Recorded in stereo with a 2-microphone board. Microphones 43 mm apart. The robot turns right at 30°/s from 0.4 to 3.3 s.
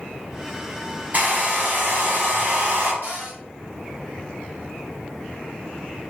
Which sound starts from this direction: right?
A cupboard door, at 3.0 s.